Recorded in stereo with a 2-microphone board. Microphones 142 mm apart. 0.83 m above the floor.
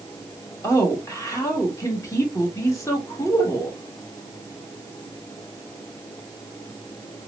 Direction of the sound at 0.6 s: 20° left (ahead or behind).